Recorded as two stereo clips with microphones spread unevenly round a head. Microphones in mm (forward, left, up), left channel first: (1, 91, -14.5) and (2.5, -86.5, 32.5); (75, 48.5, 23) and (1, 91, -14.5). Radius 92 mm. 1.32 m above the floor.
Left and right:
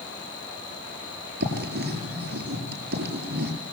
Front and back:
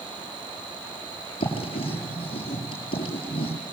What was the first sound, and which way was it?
Writing, 60° right.